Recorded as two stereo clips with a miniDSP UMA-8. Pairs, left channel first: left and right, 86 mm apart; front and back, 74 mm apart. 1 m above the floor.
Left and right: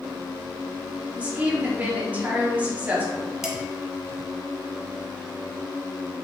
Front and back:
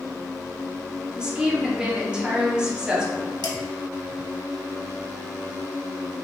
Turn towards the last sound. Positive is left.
turn(degrees=-5)